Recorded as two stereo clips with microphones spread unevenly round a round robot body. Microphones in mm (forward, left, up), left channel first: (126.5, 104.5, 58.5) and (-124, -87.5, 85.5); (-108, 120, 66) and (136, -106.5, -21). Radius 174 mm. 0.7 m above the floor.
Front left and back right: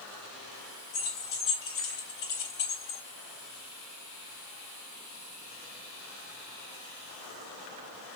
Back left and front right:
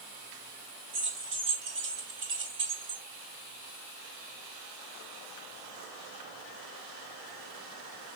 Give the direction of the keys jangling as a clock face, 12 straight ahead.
12 o'clock.